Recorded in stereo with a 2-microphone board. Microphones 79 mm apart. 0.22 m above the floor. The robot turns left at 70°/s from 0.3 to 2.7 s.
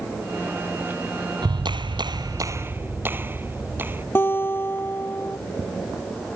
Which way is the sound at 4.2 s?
30° left (ahead or behind).